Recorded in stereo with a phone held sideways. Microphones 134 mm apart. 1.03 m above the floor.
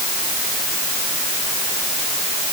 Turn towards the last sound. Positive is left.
No sound to turn to.